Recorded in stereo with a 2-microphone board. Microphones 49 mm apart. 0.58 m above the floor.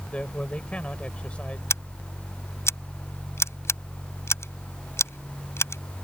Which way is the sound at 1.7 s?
65° left (ahead or behind).